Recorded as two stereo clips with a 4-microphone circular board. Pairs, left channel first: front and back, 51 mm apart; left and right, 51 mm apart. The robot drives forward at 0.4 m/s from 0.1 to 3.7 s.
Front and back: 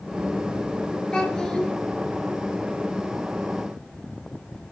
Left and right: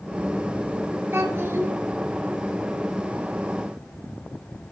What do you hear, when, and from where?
1.1 s a child speaking: 70° right, 1.2 m; by 1.7 s 85° right, 1.1 m